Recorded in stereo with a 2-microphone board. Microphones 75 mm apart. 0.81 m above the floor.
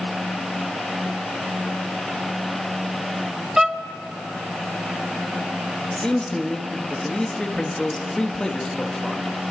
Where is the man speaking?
10° left (ahead or behind), 1.4 m.